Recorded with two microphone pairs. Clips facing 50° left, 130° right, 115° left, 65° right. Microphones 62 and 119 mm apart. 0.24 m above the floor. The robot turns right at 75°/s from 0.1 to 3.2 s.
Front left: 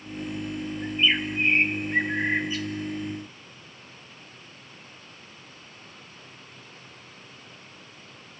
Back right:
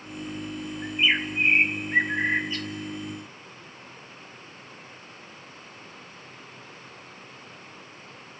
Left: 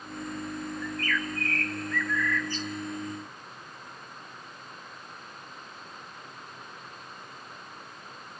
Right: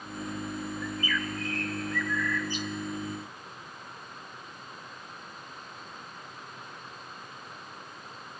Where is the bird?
145° right, 0.8 m; by 2.7 s 10° right, 0.8 m.